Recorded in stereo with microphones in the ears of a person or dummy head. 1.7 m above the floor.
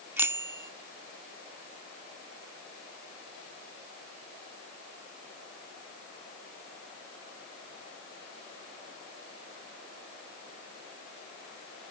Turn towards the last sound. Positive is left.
turn(degrees=-10)  # may be behind; listen again after turning